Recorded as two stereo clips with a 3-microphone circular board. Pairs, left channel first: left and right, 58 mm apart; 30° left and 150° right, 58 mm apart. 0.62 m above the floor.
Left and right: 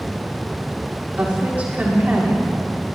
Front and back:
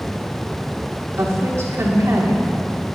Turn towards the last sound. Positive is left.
turn(degrees=-150)